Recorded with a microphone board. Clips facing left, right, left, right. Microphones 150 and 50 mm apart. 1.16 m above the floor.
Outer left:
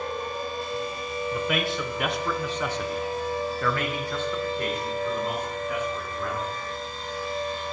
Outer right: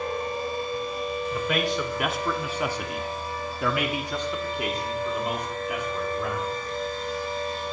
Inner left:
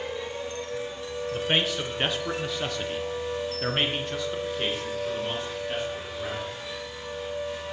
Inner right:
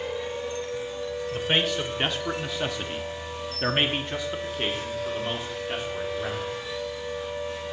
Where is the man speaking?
5° left (ahead or behind), 1.0 m; by 6.5 s 10° right (ahead or behind), 2.5 m.